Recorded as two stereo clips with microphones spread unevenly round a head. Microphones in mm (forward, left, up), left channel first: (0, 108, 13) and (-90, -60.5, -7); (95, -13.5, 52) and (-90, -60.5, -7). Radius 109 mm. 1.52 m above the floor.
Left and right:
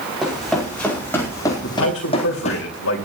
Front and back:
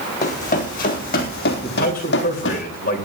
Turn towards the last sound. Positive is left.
turn(degrees=65)